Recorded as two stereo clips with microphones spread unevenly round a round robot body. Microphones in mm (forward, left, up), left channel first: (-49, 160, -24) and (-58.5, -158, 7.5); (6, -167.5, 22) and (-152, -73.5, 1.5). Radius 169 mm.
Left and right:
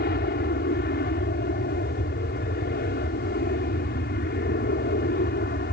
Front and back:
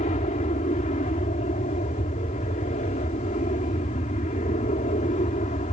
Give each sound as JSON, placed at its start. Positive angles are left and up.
{"t": 0.0, "sound": "an aircraft", "azimuth_deg": 30}